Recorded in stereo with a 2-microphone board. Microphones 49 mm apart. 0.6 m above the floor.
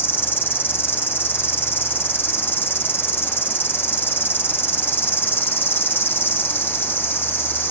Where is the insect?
50° left (ahead or behind), 1.5 m.